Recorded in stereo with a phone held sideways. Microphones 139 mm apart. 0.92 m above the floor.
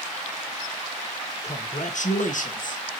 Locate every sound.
1.4 s a man speaking: 55° left (ahead or behind), 0.9 m; by 2.8 s 70° left (ahead or behind), 1.5 m